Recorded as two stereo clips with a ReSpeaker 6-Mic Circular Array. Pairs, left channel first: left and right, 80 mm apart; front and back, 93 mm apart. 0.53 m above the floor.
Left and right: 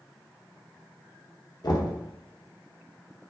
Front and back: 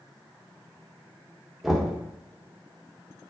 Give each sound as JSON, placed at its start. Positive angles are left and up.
{"t": 1.6, "sound": "knocking", "azimuth_deg": 90, "distance_m": 0.5}